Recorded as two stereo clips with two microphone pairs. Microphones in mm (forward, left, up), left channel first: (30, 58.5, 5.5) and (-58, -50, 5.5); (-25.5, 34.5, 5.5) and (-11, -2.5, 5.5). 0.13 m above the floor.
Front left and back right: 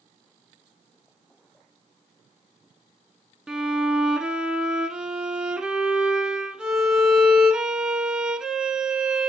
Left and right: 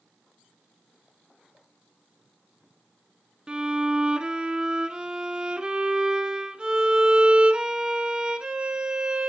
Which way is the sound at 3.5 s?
55° right.